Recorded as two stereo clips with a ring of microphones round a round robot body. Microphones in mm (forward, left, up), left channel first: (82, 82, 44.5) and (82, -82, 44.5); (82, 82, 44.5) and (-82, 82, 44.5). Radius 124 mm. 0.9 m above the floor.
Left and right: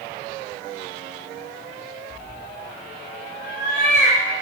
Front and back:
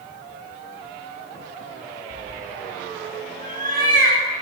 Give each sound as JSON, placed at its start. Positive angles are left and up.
{"t": 2.1, "sound": "a cat meowing", "azimuth_deg": 140, "distance_m": 5.0}